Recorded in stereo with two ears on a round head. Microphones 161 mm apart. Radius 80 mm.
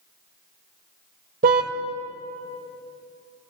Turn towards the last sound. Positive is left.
turn(degrees=-55)  # may be behind; listen again after turning